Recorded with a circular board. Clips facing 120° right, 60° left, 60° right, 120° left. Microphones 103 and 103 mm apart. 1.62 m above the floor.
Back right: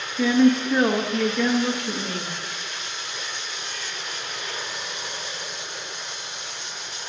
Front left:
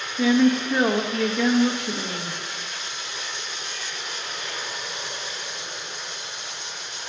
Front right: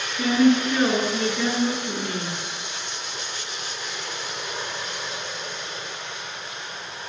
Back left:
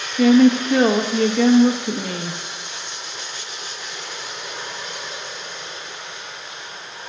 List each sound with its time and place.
0.2 s a woman speaking: 145° left, 0.7 m